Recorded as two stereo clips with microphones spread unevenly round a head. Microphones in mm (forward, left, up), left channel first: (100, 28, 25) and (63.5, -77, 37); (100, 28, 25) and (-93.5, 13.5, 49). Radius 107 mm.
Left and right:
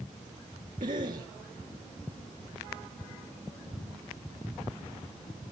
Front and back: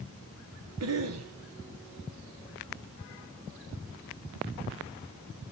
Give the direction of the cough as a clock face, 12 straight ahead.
5 o'clock.